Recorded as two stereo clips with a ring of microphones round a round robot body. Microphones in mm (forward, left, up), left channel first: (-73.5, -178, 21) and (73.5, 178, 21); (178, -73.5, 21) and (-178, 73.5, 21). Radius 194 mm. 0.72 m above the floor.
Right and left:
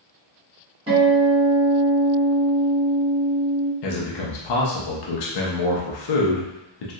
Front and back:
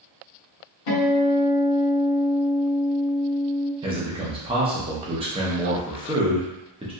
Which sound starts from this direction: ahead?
A guitar, at 0.9 s.